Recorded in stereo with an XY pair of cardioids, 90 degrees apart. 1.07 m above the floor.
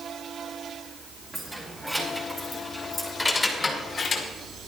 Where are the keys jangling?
5° right, 5 m; by 4.3 s 65° left, 2.0 m.